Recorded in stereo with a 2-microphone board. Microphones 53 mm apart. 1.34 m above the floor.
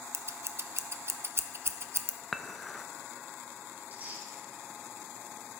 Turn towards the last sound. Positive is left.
turn(degrees=-30)  # may be behind; listen again after turning